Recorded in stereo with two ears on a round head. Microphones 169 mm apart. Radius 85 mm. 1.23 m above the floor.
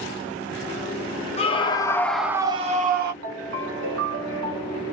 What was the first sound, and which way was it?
A scream, 30° left (ahead or behind).